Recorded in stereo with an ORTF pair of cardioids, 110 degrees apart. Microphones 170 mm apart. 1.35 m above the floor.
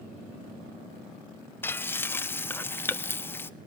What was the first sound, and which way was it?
Frying, 10° left.